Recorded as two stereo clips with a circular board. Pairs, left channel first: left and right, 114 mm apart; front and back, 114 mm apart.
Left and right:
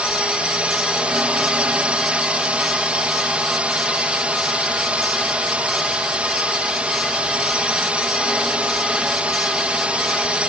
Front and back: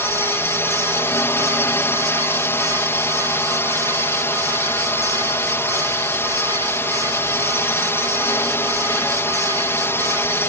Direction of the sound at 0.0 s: 30° right.